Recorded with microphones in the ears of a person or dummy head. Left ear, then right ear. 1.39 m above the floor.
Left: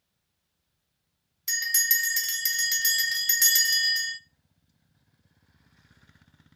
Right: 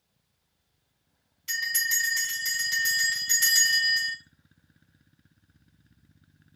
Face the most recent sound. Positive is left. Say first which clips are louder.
# left 1 dB
turn(degrees=55)  # may be behind; listen again after turning